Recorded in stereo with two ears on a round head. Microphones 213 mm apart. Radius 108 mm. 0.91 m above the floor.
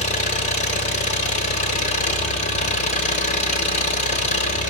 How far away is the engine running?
About 3 m.